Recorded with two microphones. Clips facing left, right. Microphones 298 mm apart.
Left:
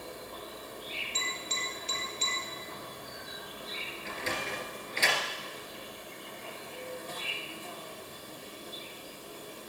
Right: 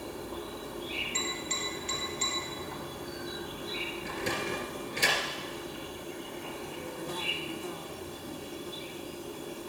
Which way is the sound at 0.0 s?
75° right (ahead or behind).